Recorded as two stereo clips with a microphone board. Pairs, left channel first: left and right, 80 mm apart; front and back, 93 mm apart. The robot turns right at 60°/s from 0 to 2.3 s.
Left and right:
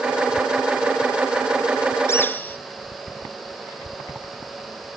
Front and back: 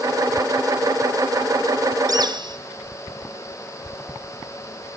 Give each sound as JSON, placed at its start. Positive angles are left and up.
{"t": 2.1, "sound": "a bird", "azimuth_deg": 140, "distance_m": 0.7}